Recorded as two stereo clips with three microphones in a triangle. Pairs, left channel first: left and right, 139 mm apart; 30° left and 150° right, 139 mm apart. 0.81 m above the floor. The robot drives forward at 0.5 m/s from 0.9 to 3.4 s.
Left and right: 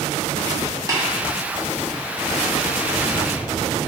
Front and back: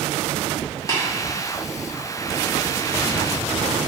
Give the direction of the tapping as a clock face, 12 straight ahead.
1 o'clock.